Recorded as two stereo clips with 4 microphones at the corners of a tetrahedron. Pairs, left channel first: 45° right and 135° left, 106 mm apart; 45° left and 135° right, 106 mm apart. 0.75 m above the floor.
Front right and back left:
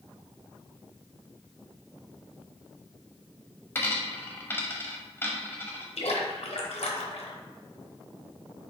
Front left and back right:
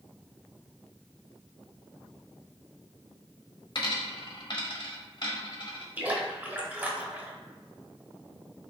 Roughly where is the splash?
Ahead right.